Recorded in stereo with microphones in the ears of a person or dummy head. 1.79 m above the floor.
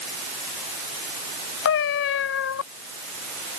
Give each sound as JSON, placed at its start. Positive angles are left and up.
{"t": 1.6, "sound": "a cat meowing", "side_deg": 55}